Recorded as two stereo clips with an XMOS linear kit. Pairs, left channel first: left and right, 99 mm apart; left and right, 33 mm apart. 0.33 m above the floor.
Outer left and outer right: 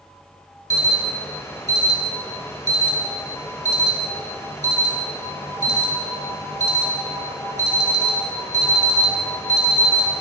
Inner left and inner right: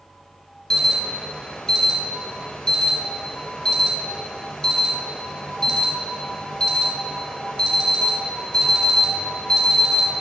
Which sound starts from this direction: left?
An alarm, at 0.7 s.